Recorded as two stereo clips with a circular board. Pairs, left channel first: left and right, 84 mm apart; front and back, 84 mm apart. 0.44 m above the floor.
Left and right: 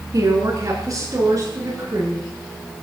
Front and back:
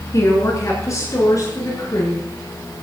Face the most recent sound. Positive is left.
turn(degrees=-45)